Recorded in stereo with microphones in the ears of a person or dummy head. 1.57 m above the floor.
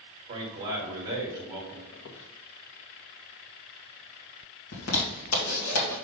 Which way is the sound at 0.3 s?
25° right (ahead or behind).